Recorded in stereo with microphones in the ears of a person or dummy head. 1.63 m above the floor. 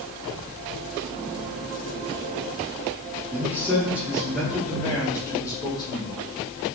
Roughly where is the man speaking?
Centre.